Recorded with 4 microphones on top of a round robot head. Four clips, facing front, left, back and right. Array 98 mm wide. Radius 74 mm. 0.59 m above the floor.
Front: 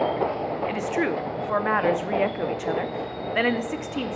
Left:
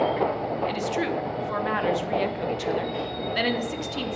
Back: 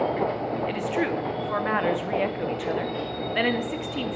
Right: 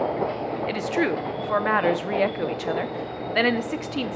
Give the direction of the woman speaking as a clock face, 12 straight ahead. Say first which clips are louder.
Right 2 dB, front 1 dB; 2 o'clock.